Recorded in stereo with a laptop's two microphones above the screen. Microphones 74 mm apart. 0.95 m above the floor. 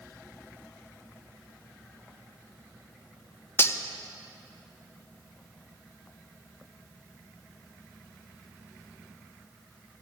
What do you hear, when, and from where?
3.6 s cutlery clinking: 35° left (ahead or behind), 0.5 m